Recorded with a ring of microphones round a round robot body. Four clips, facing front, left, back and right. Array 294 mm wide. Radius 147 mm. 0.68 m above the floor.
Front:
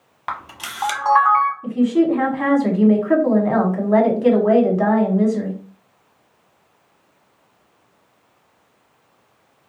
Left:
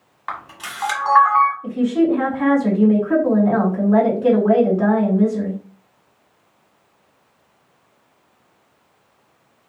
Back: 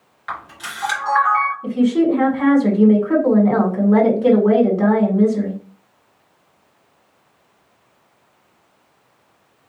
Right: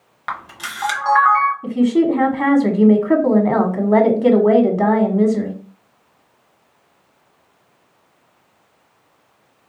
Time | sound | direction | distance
0.3 | a camera shutter | 30° right | 1.3 m
1.6 | a woman speaking | 80° right | 1.5 m